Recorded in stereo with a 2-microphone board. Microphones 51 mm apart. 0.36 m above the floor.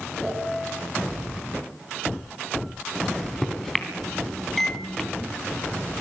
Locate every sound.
0.2 s a piano: 20° right (ahead or behind), 8.5 m
3.0 s a microwave: 5° left (ahead or behind), 3 m